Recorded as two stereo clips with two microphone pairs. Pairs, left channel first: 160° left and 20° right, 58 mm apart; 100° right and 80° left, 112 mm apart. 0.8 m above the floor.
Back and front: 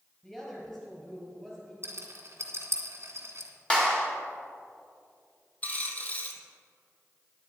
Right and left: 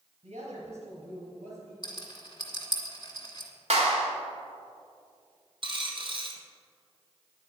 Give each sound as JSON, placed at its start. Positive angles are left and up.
{"t": 0.2, "sound": "a woman speaking", "azimuth_deg": 75, "distance_m": 4.0}
{"t": 1.8, "sound": "a rattle", "azimuth_deg": -60, "distance_m": 2.0}
{"t": 3.7, "sound": "a clap", "azimuth_deg": 85, "distance_m": 2.0}
{"t": 5.6, "sound": "a dropped coin", "azimuth_deg": 100, "distance_m": 1.3}